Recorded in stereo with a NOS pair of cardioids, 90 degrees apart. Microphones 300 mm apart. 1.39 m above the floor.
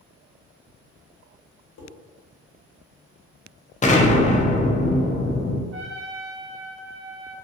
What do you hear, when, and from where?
1.8 s dishes clattering: 65° left, 1.3 m
3.8 s an explosion: 25° left, 0.6 m
5.7 s a trumpet: 45° right, 0.7 m